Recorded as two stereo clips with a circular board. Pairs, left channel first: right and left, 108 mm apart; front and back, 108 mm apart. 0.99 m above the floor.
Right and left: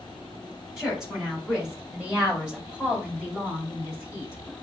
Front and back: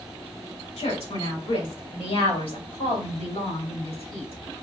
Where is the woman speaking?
5° left, 2.5 m; by 4.3 s 15° left, 4.5 m.